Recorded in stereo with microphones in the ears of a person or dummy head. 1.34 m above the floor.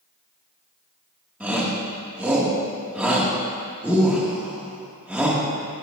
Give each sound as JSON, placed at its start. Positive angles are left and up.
{"t": 1.4, "sound": "a shout", "side_deg": -10, "distance_m": 2.5}